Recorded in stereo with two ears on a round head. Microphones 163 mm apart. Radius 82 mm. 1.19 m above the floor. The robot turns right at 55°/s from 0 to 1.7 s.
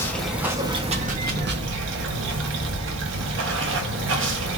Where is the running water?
165° left, 1.0 m; by 4.6 s 100° right, 1.0 m.